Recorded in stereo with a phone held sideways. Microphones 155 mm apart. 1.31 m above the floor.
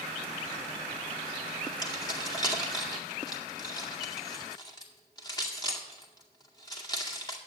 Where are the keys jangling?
25° left (ahead or behind), 2 m.